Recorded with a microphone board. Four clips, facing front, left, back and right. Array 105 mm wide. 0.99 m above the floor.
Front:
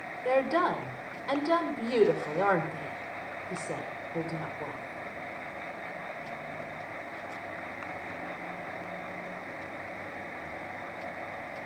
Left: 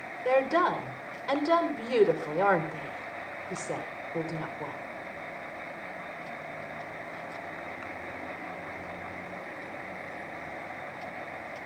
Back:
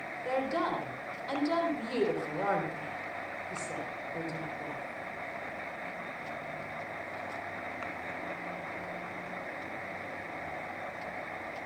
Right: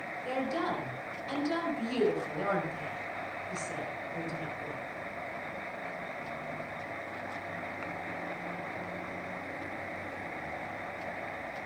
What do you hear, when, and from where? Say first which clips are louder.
0.2 s a woman speaking: left 8 dB, front 5 dB; 60° left, 3.5 m